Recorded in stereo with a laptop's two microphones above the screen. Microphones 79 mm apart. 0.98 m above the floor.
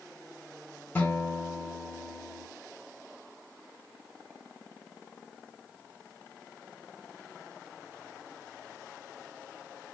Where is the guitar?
25° left (ahead or behind), 1.7 m.